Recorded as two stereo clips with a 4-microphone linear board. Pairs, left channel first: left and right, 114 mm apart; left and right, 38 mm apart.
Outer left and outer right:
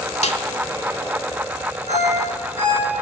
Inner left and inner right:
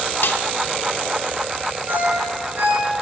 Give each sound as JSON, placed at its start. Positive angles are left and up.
{"t": 0.2, "sound": "a snare drum", "side_deg": 75, "distance_m": 1.0}
{"t": 1.9, "sound": "a ringtone", "side_deg": -80, "distance_m": 6.0}